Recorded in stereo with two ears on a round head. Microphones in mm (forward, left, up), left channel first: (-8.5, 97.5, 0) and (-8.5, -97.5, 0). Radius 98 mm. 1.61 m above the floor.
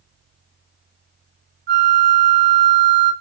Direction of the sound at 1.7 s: 45° right (ahead or behind).